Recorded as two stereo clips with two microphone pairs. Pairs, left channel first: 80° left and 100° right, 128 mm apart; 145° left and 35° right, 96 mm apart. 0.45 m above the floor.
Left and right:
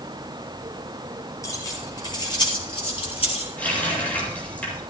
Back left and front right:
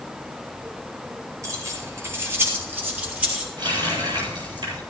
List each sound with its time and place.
1.4 s keys jangling: 15° left, 7 m; by 3.5 s 40° left, 7.5 m
3.6 s a running tap: 5° left, 9 m